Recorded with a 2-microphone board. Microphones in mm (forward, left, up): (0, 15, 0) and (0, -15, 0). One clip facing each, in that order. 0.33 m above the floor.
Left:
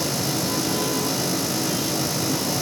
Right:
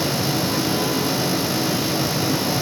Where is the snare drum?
I don't hear a snare drum.